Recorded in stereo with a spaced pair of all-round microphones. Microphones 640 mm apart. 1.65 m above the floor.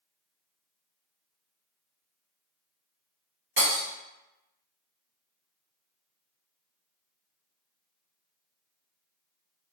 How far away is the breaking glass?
About 1.2 m.